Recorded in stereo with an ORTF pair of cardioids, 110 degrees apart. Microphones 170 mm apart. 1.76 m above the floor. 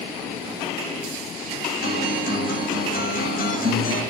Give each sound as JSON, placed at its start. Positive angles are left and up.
{"t": 1.8, "sound": "a guitar", "azimuth_deg": 60, "distance_m": 6.0}